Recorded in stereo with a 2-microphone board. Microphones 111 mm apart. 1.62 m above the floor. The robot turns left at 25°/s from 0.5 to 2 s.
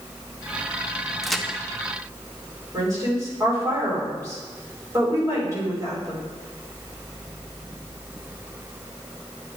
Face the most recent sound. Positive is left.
turn(degrees=-30)  # may be behind; listen again after turning